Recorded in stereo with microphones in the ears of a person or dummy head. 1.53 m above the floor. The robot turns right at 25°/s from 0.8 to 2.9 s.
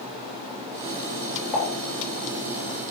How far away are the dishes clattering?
About 3.5 m.